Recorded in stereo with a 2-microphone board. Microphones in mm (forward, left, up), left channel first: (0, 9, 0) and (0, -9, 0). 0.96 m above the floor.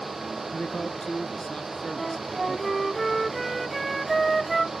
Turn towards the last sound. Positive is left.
turn(degrees=0)  # may be behind; listen again after turning